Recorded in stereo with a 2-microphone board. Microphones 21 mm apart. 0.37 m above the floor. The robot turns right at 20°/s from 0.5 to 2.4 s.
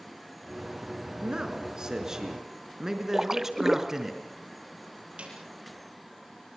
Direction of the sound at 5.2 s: 60° right (ahead or behind).